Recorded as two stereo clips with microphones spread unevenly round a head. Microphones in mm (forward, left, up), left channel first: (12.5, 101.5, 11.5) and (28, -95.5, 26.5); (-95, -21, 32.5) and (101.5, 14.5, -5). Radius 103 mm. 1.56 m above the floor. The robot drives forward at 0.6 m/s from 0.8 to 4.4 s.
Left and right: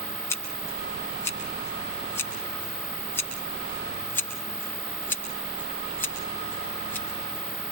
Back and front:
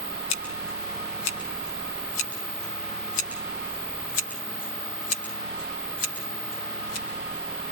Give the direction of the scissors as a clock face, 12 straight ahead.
6 o'clock.